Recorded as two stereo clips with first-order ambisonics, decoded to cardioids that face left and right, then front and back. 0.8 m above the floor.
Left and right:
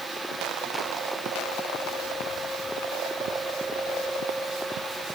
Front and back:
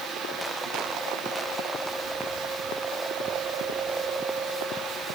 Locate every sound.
Only background noise.